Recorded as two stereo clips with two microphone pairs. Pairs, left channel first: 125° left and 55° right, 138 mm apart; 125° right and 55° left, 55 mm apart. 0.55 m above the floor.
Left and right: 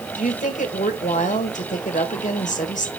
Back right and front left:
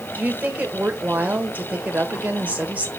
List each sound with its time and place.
0.1 s a woman speaking: 110° left, 1.8 m